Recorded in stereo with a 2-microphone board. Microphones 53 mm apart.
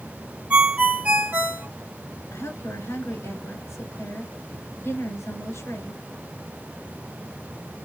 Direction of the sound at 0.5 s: 30° right (ahead or behind).